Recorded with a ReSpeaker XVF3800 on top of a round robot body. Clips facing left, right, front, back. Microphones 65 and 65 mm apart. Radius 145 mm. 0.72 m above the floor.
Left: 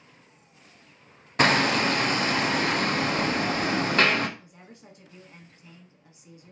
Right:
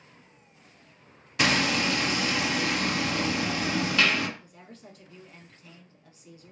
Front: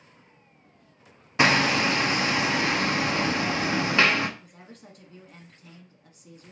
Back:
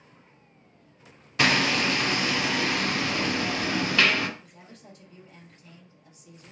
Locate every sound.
1.4 s hammering: 55° left, 0.7 m
4.4 s a woman speaking: 20° left, 1.4 m